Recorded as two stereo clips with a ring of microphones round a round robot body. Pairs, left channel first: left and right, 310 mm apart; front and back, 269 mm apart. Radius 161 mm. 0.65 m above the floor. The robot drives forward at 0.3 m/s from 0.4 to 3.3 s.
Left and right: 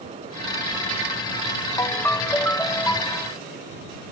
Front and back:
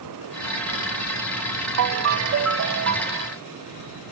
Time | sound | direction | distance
1.8 | a ringtone | 170° left | ?